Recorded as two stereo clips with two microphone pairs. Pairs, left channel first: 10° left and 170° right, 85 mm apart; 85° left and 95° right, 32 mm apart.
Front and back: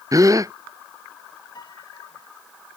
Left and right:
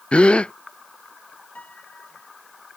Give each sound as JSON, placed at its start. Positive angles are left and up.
{"t": 0.1, "sound": "a gasp", "azimuth_deg": 140}
{"t": 1.6, "sound": "a piano", "azimuth_deg": 45}